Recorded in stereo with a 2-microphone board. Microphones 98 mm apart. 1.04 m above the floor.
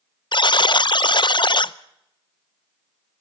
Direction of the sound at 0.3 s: 50° left (ahead or behind).